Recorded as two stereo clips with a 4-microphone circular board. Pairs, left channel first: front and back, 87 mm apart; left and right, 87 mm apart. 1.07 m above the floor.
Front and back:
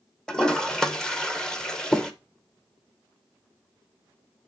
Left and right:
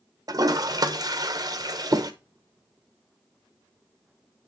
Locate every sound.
0.3 s a toilet flushing: 80° right, 0.9 m